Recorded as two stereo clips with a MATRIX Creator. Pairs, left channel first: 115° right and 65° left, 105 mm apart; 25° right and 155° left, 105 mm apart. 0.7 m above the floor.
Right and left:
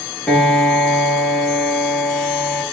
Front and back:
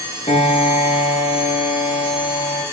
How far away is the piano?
About 10 m.